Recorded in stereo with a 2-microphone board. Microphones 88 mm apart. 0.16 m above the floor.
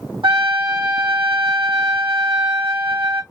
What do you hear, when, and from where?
0.2 s a trumpet: 80° right, 2.5 m